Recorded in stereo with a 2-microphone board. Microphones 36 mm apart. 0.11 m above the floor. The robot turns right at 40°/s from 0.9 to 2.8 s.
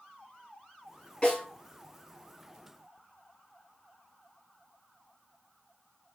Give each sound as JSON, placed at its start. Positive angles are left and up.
{"t": 1.2, "sound": "a snare drum", "side_deg": 25, "distance_m": 1.9}